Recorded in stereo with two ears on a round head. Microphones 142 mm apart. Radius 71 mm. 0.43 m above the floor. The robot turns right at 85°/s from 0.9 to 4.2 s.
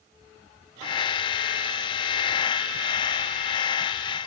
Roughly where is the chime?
No chime in this recording.